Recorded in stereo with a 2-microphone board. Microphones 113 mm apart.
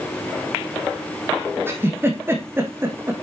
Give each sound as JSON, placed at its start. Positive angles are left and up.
{"t": 1.7, "sound": "a giggle", "side_deg": -20, "distance_m": 2.5}